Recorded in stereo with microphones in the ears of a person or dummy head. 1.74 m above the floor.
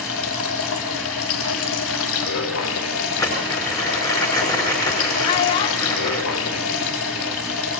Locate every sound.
0.0 s running water: 75° left (ahead or behind), 3.5 m
3.2 s crumpling: 15° left (ahead or behind), 5 m
5.2 s a child speaking: 25° left (ahead or behind), 0.5 m